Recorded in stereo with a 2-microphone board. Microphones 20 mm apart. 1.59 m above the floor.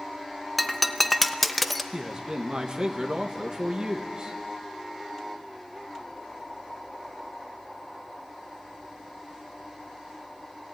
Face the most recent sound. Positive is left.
turn(degrees=-45)  # may be behind; listen again after turning